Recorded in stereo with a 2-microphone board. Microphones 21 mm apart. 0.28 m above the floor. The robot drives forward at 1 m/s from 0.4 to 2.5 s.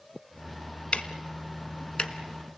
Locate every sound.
0.9 s ticking: 70° left (ahead or behind), 1.3 m; by 2.1 s 50° left (ahead or behind), 1.6 m